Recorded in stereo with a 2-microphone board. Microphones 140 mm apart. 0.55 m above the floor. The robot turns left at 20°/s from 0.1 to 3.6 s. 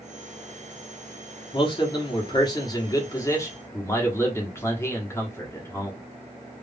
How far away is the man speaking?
About 1.3 m.